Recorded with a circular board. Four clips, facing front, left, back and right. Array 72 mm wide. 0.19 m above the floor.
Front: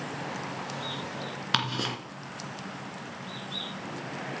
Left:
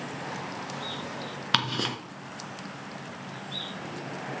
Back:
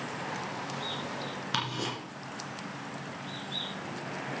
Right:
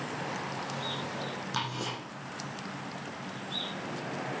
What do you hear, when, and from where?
1.5 s ticking: 65° left, 2 m